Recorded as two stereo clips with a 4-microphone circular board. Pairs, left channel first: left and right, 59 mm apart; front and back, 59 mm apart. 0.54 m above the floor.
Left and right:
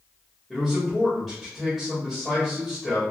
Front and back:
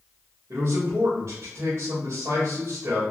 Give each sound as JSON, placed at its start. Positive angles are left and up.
{"t": 0.5, "sound": "a man speaking", "azimuth_deg": 180, "distance_m": 1.6}